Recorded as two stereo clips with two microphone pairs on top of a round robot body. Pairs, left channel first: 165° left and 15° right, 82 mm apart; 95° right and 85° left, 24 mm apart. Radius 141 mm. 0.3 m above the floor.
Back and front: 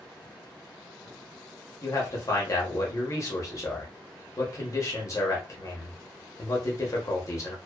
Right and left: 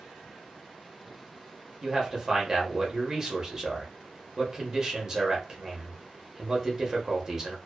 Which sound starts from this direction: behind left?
A man speaking, at 1.8 s.